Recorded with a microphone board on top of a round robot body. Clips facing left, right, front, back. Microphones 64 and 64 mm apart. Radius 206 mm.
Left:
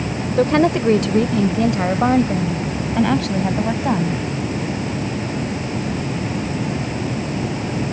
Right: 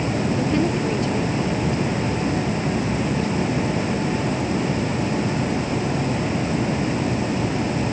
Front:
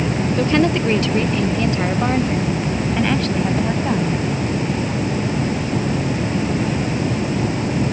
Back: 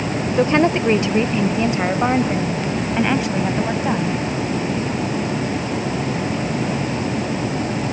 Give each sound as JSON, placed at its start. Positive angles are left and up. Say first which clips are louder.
{"t": 0.4, "sound": "a woman speaking", "louder": "left 10 dB, back 2 dB", "azimuth_deg": 115}